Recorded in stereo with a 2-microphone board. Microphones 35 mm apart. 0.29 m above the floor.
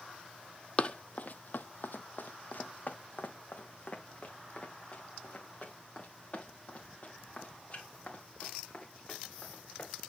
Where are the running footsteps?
35° left (ahead or behind), 0.6 m; by 10.1 s 40° left (ahead or behind), 4.5 m.